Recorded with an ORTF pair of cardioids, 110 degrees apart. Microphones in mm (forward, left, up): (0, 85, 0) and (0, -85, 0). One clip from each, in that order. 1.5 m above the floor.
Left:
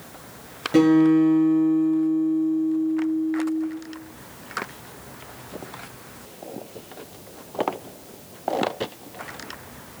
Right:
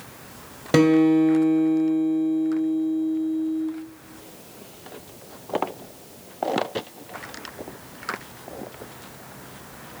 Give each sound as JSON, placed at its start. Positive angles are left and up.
{"t": 0.7, "sound": "a guitar", "azimuth_deg": -55, "distance_m": 0.9}